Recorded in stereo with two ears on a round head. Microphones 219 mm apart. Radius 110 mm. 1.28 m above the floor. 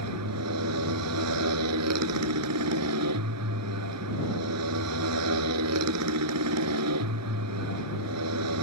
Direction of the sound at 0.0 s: 75° right (ahead or behind).